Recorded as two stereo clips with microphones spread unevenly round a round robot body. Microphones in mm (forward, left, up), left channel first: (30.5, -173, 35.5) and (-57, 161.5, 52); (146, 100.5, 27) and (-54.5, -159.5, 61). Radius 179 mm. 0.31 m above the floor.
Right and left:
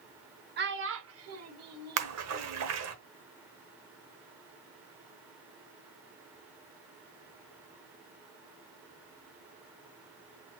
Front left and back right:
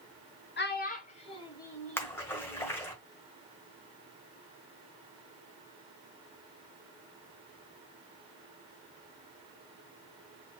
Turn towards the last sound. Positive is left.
turn(degrees=125)